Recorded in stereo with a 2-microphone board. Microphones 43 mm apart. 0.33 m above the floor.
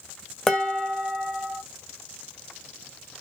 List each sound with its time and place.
0.5 s dishes clattering: 5° left (ahead or behind), 0.9 m